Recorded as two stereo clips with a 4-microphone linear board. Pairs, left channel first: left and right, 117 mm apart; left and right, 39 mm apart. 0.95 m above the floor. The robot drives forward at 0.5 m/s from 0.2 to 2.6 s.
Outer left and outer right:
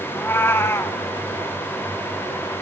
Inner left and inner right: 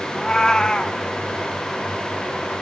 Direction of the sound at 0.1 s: 20° left (ahead or behind).